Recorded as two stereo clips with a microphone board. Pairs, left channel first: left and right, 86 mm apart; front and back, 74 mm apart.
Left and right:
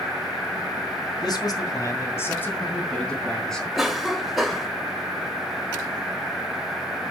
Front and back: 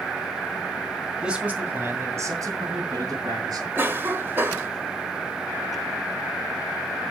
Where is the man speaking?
105° left, 2.5 m; by 3.6 s 175° left, 4 m.